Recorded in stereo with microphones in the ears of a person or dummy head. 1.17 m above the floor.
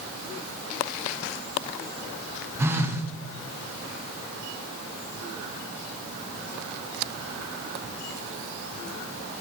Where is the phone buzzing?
15° right (ahead or behind), 0.7 m.